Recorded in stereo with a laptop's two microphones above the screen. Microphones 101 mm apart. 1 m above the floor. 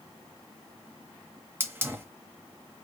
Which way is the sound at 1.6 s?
20° right (ahead or behind).